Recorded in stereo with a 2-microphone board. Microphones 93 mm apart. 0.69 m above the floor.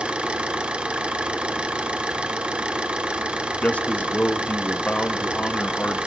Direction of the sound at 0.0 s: 10° right (ahead or behind).